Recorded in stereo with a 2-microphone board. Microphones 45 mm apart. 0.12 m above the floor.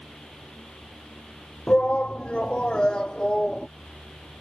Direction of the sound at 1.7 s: 25° left (ahead or behind).